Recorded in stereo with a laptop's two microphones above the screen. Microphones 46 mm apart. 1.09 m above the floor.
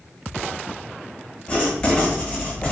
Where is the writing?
20° left (ahead or behind), 0.9 m.